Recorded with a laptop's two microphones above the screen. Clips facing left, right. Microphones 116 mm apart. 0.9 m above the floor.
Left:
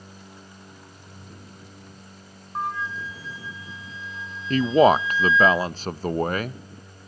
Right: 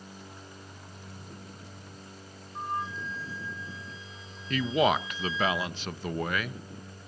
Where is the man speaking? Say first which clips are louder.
Left 9 dB; 40° left (ahead or behind), 0.6 m.